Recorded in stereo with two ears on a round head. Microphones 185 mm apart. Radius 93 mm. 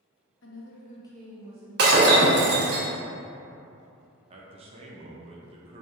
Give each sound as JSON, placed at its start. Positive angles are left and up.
{"t": 0.4, "sound": "a woman speaking", "side_deg": 65, "distance_m": 1.0}
{"t": 1.8, "sound": "breaking glass", "side_deg": -50, "distance_m": 0.9}
{"t": 4.3, "sound": "a man speaking", "side_deg": -30, "distance_m": 0.6}